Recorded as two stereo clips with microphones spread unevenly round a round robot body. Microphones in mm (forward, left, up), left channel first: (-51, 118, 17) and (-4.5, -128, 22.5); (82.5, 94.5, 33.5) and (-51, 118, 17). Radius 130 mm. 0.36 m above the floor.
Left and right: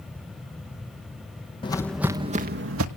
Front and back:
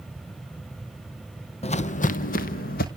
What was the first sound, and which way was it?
Footsteps, 30° left.